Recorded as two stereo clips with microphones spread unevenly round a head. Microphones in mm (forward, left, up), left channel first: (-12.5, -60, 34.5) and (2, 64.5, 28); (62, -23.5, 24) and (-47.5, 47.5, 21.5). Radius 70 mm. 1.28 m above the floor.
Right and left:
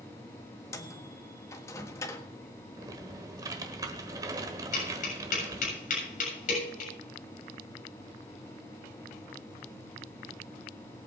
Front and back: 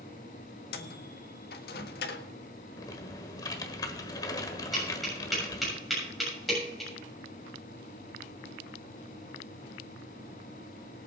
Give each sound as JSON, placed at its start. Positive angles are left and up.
{"t": 0.7, "sound": "a microwave", "azimuth_deg": -30, "distance_m": 1.5}
{"t": 2.8, "sound": "typing on a keyboard", "azimuth_deg": 20, "distance_m": 1.3}
{"t": 4.7, "sound": "tapping", "azimuth_deg": -120, "distance_m": 7.0}